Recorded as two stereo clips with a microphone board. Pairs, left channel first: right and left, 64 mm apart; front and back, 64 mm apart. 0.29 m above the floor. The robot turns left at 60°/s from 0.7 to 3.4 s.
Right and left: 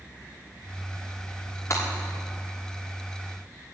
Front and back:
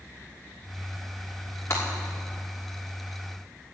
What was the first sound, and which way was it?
Breaking glass, 45° right.